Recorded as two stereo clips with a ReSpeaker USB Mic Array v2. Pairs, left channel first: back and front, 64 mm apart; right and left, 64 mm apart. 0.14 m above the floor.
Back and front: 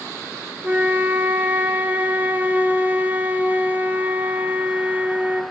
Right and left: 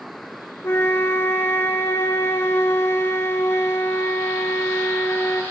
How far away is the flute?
About 0.5 m.